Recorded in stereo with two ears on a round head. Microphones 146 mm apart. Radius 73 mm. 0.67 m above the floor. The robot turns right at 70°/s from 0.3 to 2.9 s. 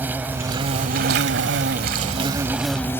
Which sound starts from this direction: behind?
An insect, at 0.0 s.